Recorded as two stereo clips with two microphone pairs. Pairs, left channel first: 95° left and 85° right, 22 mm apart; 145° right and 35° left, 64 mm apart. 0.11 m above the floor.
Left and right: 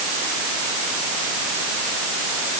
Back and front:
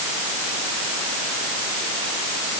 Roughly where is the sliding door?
No sliding door in this recording.